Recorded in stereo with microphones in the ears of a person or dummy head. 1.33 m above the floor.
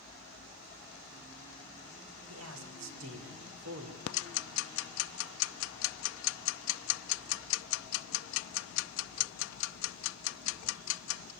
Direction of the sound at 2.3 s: 85° right.